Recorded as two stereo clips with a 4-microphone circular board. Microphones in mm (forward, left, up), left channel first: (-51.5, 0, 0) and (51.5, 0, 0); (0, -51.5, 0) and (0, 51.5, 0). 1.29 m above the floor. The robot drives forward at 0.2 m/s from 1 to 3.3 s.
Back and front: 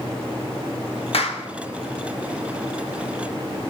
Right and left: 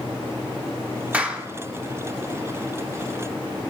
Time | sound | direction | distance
1.1 | a clap | 165° left | 1.2 m